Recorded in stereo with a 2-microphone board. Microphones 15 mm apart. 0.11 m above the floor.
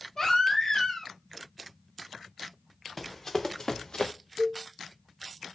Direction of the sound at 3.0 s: 15° left (ahead or behind).